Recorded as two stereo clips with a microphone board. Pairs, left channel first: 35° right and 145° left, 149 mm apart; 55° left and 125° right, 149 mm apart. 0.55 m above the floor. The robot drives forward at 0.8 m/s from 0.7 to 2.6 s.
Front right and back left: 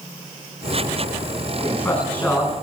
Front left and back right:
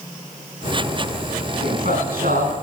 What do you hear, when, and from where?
1.6 s a man speaking: 115° right, 5.5 m; by 2.5 s 120° right, 5.5 m